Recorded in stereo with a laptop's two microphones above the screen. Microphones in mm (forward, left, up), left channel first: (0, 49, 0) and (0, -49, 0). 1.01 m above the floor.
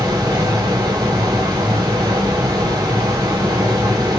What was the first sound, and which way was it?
A fan, 45° right (ahead or behind).